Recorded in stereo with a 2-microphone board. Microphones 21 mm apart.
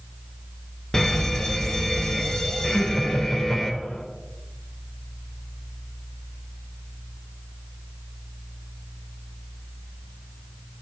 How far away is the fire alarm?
About 1.5 m.